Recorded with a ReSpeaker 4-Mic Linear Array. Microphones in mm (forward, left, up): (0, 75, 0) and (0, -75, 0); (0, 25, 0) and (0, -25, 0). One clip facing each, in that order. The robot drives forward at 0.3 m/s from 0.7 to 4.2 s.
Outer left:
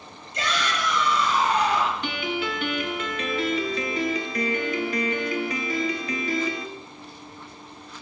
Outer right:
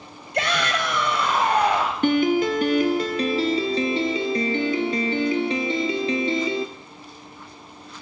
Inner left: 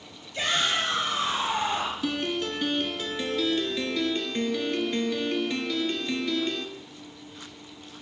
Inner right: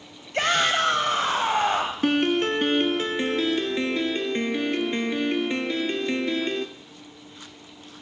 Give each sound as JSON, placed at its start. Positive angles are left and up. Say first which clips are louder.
{"t": 0.3, "sound": "a shout", "louder": "outer right 4 dB, inner right 5 dB", "side_deg": -60, "distance_m": 1.7}
{"t": 2.0, "sound": "a piano", "louder": "outer right 10 dB, inner right 7 dB", "side_deg": -45, "distance_m": 0.8}